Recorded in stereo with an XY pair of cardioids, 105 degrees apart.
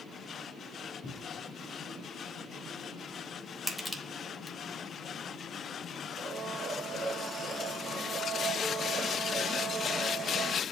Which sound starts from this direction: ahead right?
A blender, at 6.2 s.